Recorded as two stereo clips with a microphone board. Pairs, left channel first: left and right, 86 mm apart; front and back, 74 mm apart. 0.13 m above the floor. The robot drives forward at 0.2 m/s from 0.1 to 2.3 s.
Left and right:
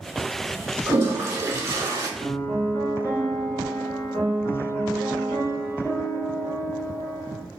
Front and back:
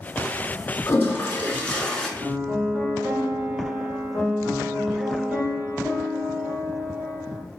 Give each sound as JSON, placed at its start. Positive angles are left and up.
{"t": 0.9, "sound": "a toilet flushing", "azimuth_deg": -40, "distance_m": 0.6}
{"t": 2.2, "sound": "a piano", "azimuth_deg": 125, "distance_m": 1.2}